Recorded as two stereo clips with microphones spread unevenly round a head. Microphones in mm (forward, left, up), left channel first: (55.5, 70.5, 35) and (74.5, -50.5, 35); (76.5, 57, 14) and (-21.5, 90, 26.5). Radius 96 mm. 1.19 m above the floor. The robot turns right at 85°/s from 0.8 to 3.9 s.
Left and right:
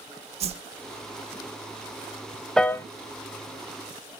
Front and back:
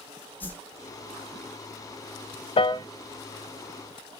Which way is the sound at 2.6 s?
15° left.